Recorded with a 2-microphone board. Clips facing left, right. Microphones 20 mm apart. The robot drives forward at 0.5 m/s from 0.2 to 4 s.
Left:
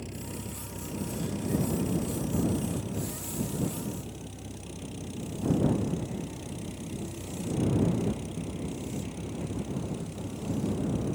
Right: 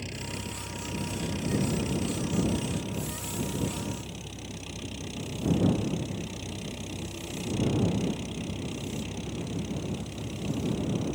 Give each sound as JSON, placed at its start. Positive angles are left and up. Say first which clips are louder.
{"t": 0.0, "sound": "an engine running", "louder": "right 3 dB", "side_deg": -35}